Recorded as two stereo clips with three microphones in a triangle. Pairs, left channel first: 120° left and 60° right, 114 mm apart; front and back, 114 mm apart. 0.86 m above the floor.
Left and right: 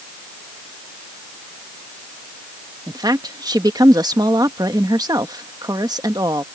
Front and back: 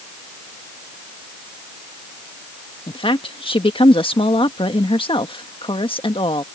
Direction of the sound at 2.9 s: 15° right.